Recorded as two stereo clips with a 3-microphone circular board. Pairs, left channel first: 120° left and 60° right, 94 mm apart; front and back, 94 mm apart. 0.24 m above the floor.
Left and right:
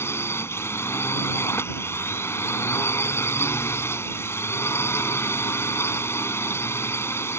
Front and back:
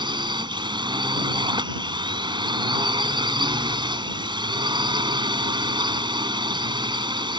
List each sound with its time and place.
0.0 s a drone: 175° left